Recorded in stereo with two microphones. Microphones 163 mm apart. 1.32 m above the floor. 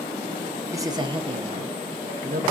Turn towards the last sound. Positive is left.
turn(degrees=-60)  # may be behind; listen again after turning